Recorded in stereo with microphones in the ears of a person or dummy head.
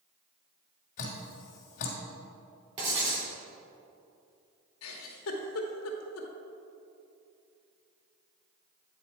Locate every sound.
1.0 s dripping: 45° left (ahead or behind), 1.3 m
2.8 s writing: 30° right (ahead or behind), 2.5 m
4.8 s a giggle: 85° left, 1.0 m